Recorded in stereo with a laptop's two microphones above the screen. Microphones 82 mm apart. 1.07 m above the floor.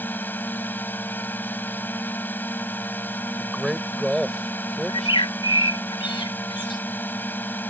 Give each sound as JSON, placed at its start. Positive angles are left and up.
{"t": 0.0, "sound": "a drone", "side_deg": 25}
{"t": 3.4, "sound": "a man speaking", "side_deg": 0}
{"t": 4.9, "sound": "a bird", "side_deg": 80}